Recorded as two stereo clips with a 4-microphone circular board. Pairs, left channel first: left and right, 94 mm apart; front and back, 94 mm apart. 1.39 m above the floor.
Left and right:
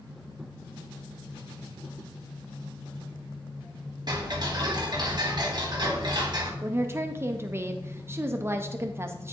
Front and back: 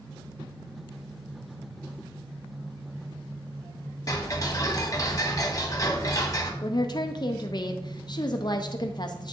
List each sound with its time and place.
4.1 s ticking: 50° right, 1.2 m
6.6 s a woman speaking: 30° right, 0.5 m